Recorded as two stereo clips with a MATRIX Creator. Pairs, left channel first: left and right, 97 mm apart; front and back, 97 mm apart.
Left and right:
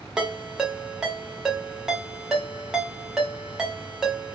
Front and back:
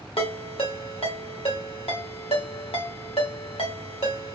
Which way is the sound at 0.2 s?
5° right.